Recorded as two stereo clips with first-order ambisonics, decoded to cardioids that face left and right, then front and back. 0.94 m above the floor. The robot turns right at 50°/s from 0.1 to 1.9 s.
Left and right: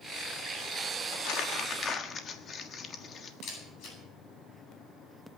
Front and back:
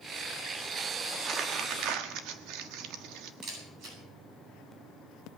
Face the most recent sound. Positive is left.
turn(degrees=135)